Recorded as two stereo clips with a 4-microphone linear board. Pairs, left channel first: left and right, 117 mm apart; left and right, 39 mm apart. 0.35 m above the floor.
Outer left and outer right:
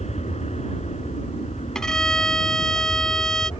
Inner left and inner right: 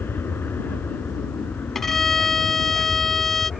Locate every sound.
0.0 s an aircraft: 70° left (ahead or behind)
1.8 s a violin: 5° left (ahead or behind)